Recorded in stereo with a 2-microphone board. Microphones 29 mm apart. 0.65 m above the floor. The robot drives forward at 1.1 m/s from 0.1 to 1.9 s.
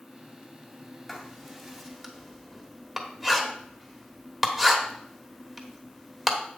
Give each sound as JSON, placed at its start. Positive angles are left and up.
{"t": 1.1, "sound": "writing", "side_deg": -5, "distance_m": 2.0}